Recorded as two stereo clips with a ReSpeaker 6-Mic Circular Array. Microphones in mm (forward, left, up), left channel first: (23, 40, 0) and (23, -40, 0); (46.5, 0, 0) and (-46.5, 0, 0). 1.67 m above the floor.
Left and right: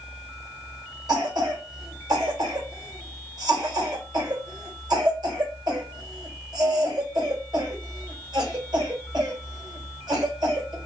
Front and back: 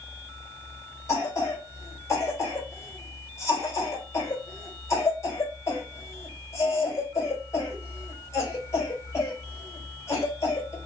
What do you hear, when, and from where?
1.1 s a cough: 60° right, 1.8 m